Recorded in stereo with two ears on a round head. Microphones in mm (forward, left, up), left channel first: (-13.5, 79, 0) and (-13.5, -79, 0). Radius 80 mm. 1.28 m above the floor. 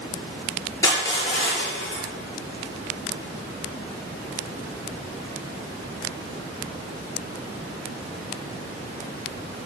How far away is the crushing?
About 5.5 m.